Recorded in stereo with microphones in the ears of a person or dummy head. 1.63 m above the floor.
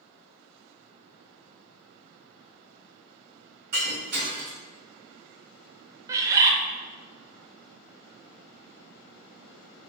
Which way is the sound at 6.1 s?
20° right (ahead or behind).